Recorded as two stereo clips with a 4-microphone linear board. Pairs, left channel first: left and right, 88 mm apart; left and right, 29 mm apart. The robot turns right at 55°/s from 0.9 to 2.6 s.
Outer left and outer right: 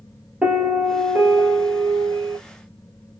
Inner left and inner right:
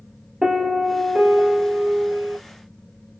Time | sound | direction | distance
0.4 | a piano | 170° right | 1.4 m